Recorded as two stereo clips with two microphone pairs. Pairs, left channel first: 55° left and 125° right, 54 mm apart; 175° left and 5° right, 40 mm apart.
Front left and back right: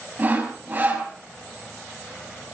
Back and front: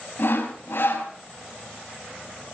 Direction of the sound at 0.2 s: 175° right.